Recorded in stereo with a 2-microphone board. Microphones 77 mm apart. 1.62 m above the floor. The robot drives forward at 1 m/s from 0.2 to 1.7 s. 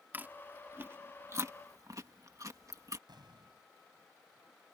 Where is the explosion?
65° right (ahead or behind).